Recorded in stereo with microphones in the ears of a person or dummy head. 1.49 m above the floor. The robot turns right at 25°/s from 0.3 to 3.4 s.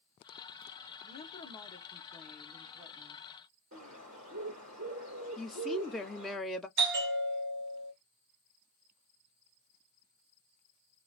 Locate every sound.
1.0 s a woman speaking: 140° left, 1.1 m; by 3.2 s 160° right, 1.1 m
3.7 s a bird: 40° right (ahead or behind), 2 m
5.4 s a woman speaking: centre (ahead or behind), 0.5 m
6.8 s a bell: 60° right (ahead or behind), 0.8 m